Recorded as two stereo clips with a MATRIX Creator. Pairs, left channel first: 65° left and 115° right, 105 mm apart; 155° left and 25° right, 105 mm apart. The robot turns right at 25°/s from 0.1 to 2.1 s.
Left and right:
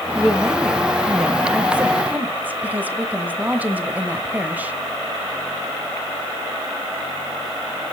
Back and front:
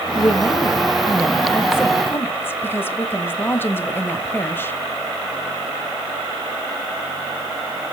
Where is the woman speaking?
145° left, 0.9 m; by 4.8 s 165° right, 0.9 m.